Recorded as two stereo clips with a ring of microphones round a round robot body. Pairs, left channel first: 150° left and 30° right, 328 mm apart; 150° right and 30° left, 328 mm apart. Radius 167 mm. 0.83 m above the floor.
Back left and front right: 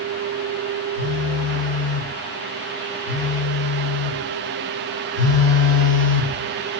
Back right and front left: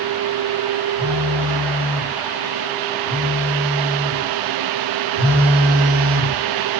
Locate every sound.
1.0 s a phone buzzing: 25° left, 1.8 m